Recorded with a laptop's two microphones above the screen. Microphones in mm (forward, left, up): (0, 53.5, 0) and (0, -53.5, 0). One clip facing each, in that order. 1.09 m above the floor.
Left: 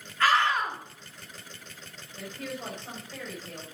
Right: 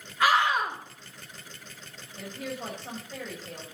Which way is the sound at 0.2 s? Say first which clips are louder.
Right 1 dB; 15° right (ahead or behind).